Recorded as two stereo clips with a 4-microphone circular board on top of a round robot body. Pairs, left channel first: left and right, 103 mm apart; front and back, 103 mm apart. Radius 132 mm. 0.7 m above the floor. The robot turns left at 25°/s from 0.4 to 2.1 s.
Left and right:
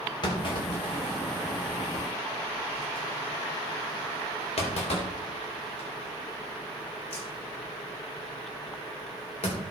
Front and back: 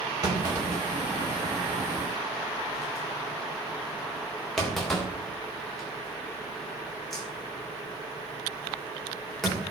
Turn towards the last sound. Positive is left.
turn(degrees=90)